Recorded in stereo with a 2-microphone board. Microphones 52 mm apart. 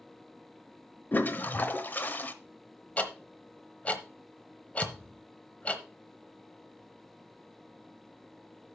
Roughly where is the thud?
Centre.